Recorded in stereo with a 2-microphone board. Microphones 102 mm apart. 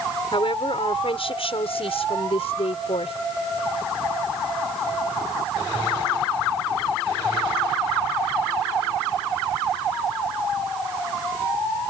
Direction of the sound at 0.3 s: 60° left (ahead or behind).